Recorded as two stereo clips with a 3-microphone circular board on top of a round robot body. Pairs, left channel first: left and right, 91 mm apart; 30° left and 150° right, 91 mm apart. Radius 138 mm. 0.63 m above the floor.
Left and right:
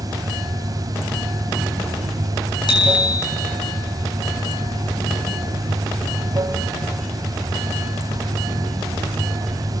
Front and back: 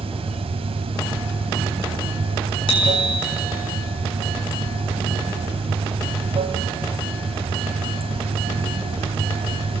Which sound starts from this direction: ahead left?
A bicycle bell, at 2.7 s.